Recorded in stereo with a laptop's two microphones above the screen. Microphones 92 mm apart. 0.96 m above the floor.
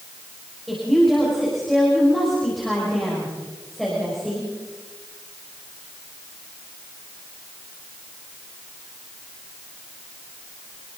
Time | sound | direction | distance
0.7 | a woman speaking | 5° left (ahead or behind) | 5.5 m